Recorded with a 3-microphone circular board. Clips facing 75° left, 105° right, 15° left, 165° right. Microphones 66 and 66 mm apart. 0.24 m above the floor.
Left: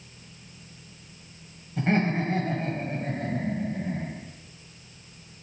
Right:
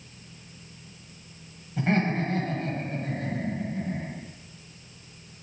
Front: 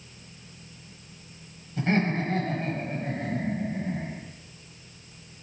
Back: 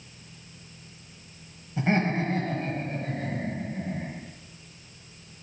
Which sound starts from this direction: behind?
Laughter, at 1.8 s.